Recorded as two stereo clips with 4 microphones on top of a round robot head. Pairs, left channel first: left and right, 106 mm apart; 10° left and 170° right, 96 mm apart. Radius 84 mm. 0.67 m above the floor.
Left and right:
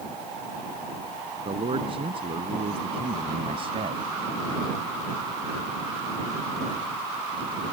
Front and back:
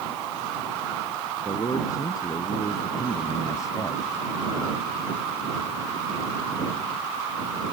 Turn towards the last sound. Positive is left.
turn(degrees=-55)